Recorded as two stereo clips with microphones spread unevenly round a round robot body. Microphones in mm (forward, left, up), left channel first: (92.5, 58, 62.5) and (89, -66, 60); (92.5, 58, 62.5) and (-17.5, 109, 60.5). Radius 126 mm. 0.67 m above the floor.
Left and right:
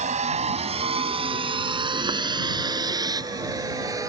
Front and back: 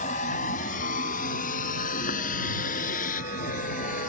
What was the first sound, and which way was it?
A vehicle, 70° right.